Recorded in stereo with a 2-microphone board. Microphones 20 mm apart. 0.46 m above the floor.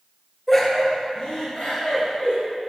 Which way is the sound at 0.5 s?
5° left (ahead or behind).